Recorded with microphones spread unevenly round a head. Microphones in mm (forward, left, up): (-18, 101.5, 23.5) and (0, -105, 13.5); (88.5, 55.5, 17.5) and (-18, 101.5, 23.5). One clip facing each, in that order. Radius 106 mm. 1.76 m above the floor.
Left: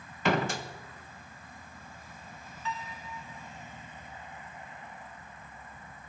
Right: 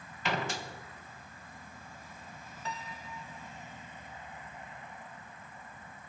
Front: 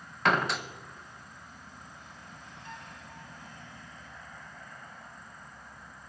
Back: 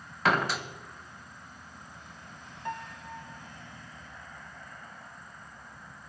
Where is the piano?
140° right, 0.7 m.